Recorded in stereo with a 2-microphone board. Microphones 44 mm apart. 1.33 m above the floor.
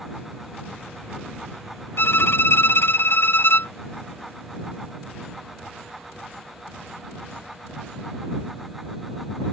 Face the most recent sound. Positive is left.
turn(degrees=60)  # may be behind; listen again after turning